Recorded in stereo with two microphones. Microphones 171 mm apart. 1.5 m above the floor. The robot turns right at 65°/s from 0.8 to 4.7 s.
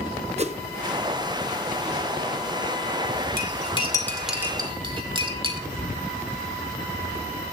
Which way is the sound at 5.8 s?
25° right (ahead or behind).